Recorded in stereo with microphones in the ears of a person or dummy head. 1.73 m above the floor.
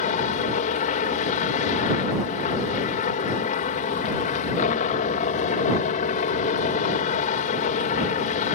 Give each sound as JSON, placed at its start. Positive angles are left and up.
{"t": 0.0, "sound": "a helicopter", "side_deg": 40}